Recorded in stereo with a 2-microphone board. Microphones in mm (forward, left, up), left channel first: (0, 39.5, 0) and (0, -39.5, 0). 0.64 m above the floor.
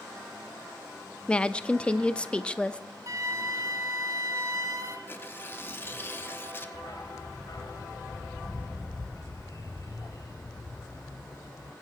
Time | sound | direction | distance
1.3 | a woman speaking | 15° left (ahead or behind) | 0.6 m
3.1 | a flute | 45° right (ahead or behind) | 1.3 m
5.1 | tearing paper | 30° left (ahead or behind) | 1.0 m
6.7 | a dog barking | 55° left (ahead or behind) | 1.4 m